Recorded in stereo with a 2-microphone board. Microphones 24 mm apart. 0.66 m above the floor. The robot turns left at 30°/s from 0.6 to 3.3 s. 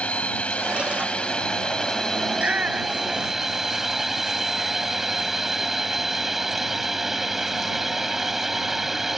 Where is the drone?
70° left; by 9.2 s 15° right.